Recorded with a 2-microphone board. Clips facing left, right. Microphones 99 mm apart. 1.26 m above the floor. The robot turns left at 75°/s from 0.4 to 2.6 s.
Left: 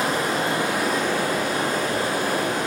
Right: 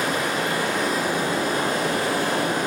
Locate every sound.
0.0 s running water: 40° left, 2 m; by 2.7 s 125° right, 2 m